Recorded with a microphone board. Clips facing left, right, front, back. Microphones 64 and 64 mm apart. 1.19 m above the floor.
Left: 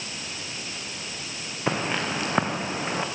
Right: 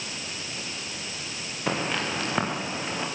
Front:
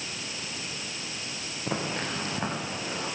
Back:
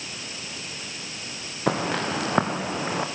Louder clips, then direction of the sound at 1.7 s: Left 1 dB, back 7 dB; 170° left.